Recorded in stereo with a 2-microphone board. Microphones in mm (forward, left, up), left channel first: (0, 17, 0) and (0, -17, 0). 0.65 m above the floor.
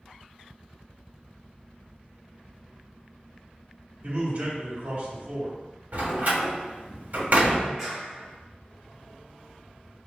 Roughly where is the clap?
Centre.